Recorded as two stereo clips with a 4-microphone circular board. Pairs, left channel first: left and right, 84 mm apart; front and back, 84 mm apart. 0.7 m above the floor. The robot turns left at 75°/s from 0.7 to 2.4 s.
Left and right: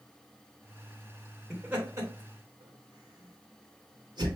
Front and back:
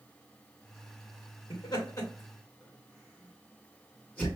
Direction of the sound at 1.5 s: 20° right.